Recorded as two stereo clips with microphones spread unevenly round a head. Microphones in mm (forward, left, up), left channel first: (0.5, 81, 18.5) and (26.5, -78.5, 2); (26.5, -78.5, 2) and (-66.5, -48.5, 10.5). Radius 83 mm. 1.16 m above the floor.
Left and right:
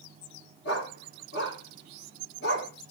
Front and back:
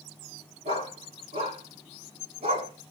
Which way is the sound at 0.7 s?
125° left.